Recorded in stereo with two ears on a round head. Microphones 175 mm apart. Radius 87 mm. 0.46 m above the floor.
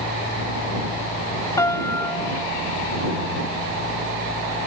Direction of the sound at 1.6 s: 15° left (ahead or behind).